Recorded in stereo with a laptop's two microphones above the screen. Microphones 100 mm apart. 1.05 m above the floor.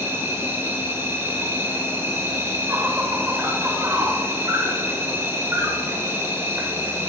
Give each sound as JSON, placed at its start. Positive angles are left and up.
{"t": 0.0, "sound": "an insect", "side_deg": -25, "distance_m": 1.0}